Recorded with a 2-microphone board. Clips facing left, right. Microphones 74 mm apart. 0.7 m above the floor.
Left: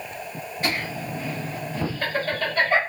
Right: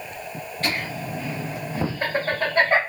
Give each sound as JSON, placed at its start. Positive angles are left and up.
{"t": 0.6, "sound": "laughter", "side_deg": 10, "distance_m": 0.8}